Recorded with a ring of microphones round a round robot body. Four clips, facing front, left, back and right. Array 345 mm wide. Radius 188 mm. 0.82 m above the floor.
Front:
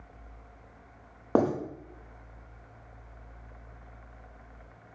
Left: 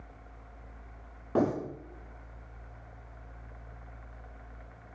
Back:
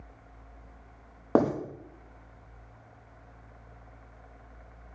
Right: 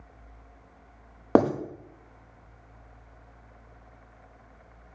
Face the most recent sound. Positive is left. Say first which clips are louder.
# right 6 dB, back 1 dB
turn(degrees=-95)